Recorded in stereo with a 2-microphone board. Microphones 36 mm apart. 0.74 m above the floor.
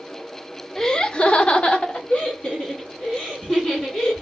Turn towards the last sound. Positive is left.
turn(degrees=30)  # may be behind; listen again after turning